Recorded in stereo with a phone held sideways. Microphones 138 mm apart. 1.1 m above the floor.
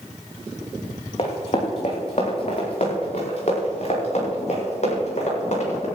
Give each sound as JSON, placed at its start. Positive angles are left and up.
{"t": 1.2, "sound": "running footsteps", "side_deg": 50, "distance_m": 3.0}